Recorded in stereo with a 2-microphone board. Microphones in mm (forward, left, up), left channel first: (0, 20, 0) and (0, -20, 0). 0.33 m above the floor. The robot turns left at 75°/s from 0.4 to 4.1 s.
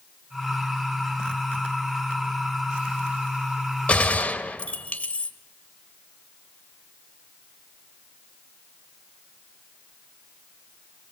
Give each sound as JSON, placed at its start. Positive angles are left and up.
{"t": 3.9, "sound": "a gunshot", "side_deg": 30, "distance_m": 1.2}